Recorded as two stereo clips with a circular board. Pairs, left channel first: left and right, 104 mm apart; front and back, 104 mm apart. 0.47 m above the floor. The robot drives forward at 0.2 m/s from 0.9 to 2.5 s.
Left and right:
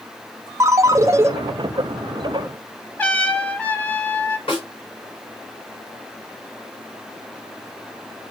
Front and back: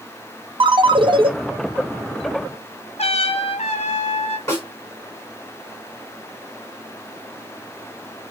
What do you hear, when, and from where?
0.6 s a ringtone: 150° right, 0.5 m
3.0 s a trumpet: 15° left, 0.8 m
4.5 s a snare drum: 60° left, 3.5 m